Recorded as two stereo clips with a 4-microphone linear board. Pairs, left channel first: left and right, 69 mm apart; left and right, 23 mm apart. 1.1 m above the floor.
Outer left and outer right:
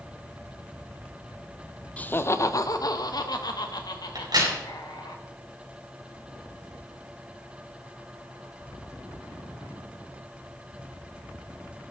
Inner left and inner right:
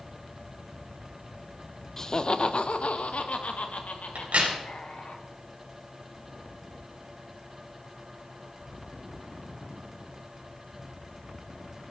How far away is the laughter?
About 0.6 m.